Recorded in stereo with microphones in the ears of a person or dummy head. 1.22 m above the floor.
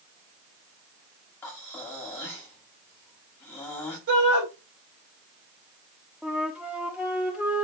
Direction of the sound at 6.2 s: 5° right (ahead or behind).